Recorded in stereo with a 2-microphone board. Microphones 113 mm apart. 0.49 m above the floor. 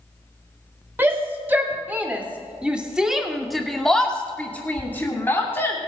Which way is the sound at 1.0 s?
15° right (ahead or behind).